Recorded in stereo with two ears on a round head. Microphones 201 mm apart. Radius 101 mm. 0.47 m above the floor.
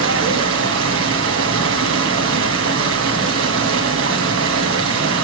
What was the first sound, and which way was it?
Running water, 60° right (ahead or behind).